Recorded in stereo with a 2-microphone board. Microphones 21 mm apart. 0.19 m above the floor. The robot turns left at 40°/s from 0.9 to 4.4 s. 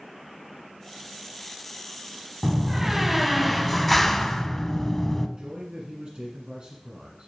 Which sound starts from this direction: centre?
A door slam, at 2.4 s.